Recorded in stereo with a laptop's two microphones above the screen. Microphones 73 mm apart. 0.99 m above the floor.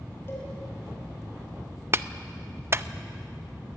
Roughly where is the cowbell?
Left.